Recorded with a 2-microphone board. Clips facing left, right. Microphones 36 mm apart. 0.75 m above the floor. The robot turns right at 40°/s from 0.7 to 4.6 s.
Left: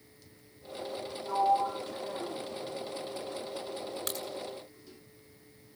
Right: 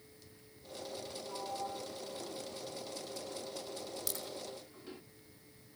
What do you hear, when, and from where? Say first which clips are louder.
1.3 s a sliding door: left 15 dB; 75° left (ahead or behind), 1.1 m; by 5.0 s 35° right (ahead or behind), 1.1 m
4.1 s a crack: left 6 dB; 45° left (ahead or behind), 7 m; by 4.2 s 55° left (ahead or behind), 7 m